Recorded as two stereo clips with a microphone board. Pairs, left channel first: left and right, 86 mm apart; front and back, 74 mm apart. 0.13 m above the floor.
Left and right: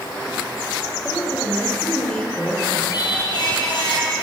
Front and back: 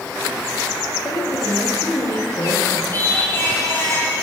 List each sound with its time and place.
1.0 s a woman speaking: 10° left, 6 m
2.9 s singing: 60° left, 3.5 m